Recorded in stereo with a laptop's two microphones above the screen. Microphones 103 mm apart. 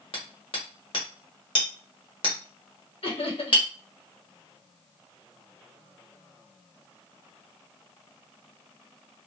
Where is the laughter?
65° left (ahead or behind), 1.4 m.